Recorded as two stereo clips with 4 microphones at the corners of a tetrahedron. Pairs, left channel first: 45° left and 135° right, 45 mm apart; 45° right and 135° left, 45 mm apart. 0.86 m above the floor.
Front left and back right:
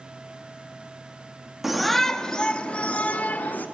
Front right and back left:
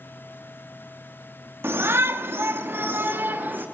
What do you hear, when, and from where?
1.6 s a shout: 140° left, 1.7 m; by 3.6 s 90° left, 3 m